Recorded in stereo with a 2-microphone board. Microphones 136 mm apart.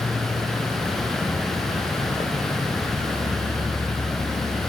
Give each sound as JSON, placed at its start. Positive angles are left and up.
{"t": 0.0, "sound": "an insect", "side_deg": 55, "distance_m": 0.8}